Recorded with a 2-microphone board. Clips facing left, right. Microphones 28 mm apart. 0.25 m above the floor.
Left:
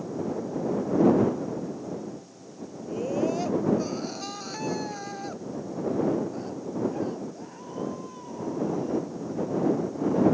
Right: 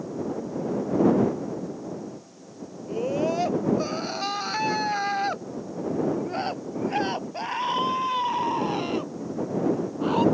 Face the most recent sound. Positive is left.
turn(degrees=-80)